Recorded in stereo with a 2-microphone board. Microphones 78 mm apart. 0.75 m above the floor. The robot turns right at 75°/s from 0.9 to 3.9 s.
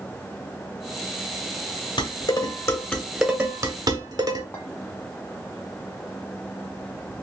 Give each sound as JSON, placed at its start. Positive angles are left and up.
{"t": 2.0, "sound": "dishes clattering", "side_deg": 85, "distance_m": 1.2}
{"t": 4.5, "sound": "a clink", "side_deg": 25, "distance_m": 1.3}